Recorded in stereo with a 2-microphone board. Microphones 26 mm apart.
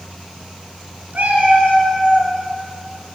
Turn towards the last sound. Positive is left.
turn(degrees=-45)  # may be behind; listen again after turning